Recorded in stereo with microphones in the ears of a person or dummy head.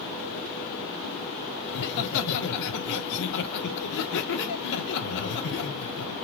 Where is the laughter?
65° left (ahead or behind), 1.3 m.